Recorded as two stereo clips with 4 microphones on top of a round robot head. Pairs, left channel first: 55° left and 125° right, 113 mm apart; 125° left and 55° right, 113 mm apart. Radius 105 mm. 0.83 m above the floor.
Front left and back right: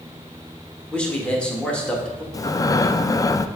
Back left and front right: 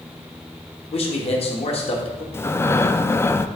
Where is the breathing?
80° left, 0.5 m.